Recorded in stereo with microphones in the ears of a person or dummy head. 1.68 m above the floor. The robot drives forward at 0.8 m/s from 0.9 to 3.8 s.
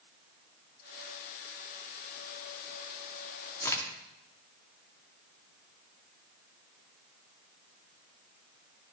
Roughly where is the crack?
Centre.